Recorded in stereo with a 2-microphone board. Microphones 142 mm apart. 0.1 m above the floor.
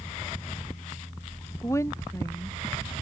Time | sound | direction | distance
1.6 | a woman speaking | 20° left (ahead or behind) | ?